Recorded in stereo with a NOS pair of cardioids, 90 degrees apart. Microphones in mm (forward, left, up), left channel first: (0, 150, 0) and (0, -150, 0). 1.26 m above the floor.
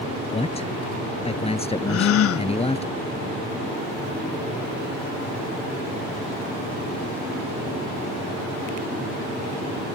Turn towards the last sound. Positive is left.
turn(degrees=55)